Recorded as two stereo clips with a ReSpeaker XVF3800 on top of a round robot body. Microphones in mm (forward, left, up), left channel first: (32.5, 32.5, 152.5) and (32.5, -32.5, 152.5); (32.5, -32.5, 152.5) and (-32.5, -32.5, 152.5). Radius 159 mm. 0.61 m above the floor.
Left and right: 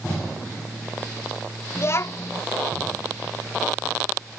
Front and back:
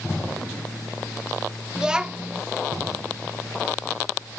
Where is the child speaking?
110° left, 0.7 m.